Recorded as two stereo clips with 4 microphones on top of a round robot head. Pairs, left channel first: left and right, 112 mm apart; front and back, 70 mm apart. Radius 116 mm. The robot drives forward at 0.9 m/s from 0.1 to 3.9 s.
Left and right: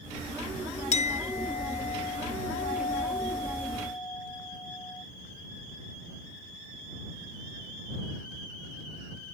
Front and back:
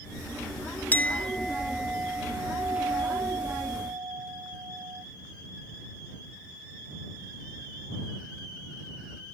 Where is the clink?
65° left; by 5.0 s 150° left.